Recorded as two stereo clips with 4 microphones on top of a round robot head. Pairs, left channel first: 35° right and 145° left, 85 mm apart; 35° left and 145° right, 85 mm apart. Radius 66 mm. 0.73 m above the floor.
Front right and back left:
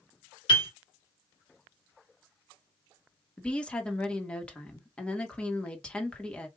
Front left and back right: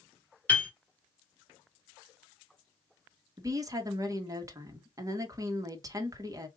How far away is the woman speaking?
About 1.4 m.